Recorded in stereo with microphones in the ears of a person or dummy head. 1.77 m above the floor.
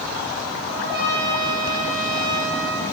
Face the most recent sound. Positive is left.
turn(degrees=-65)  # may be behind; listen again after turning